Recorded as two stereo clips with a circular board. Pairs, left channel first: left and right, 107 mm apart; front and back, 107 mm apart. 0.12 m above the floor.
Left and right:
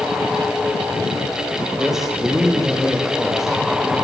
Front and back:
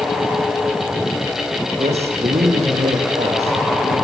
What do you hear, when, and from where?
1.8 s a man speaking: 175° right, 7 m